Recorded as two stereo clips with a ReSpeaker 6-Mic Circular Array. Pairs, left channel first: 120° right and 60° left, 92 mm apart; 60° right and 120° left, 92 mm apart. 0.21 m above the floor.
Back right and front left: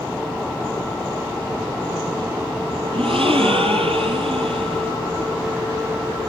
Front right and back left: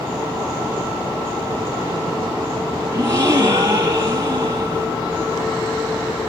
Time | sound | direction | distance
2.9 | a gasp | 60° left | 6 m